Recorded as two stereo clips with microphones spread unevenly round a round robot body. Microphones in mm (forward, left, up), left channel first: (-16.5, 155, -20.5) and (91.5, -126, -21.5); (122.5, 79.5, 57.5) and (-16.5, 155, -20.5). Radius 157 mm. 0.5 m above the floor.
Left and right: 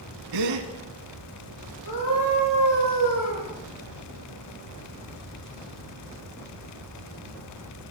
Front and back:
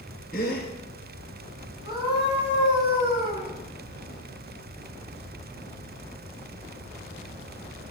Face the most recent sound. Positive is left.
turn(degrees=95)